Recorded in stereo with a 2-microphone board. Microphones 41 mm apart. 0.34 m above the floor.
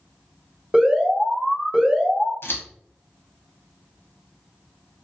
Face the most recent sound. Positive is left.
turn(degrees=70)  # may be behind; listen again after turning